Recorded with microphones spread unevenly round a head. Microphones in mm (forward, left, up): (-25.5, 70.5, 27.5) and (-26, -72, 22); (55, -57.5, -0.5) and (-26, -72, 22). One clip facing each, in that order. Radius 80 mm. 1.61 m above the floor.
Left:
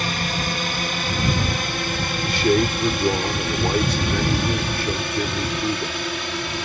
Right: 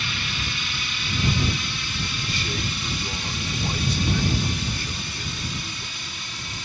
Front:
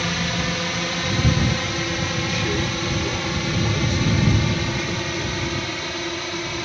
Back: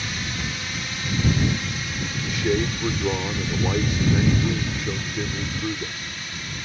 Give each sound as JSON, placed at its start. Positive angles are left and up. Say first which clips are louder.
{"t": 0.0, "sound": "a drone", "louder": "left 8 dB, front 6 dB", "azimuth_deg": 40}
{"t": 2.2, "sound": "a man speaking", "louder": "left 16 dB, back 5 dB", "azimuth_deg": 120}